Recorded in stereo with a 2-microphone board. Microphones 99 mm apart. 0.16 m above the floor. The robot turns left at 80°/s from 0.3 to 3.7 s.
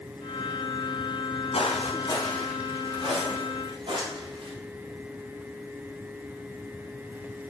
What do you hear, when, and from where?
1.5 s footsteps: 75° left (ahead or behind), 1.7 m; by 4.5 s 50° right (ahead or behind), 3 m